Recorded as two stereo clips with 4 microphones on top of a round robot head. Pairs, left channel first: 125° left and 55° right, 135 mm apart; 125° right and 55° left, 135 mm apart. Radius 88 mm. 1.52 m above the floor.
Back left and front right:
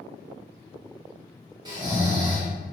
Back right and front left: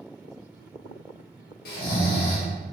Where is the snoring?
115° right, 0.6 m.